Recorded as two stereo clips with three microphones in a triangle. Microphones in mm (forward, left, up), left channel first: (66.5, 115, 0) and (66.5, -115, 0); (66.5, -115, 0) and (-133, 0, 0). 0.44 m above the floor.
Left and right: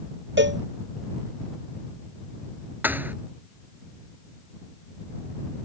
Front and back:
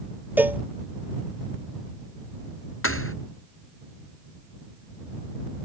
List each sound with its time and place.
0.4 s a cowbell: 130° right
2.8 s a thud: 10° right